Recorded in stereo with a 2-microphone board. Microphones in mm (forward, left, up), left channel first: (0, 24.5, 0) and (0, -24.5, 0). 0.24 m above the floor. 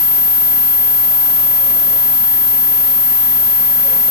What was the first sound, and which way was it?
Only background noise.